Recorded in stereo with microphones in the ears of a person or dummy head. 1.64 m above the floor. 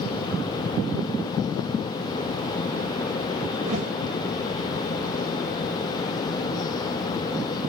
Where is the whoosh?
40° right (ahead or behind), 4.5 m.